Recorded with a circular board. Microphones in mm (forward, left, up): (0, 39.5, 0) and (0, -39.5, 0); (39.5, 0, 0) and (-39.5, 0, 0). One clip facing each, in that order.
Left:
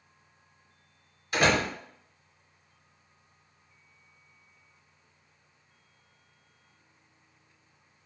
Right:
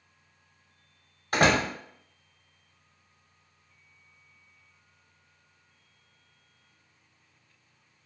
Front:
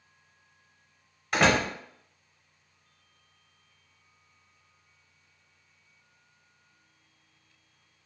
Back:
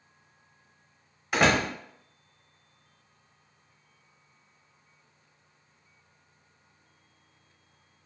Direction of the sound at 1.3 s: 90° right.